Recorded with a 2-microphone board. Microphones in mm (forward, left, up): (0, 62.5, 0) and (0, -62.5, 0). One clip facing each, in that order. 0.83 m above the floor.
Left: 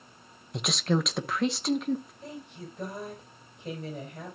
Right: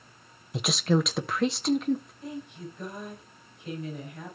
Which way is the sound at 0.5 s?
Centre (ahead or behind).